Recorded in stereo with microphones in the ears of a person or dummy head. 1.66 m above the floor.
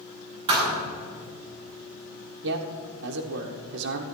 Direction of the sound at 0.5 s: 25° right (ahead or behind).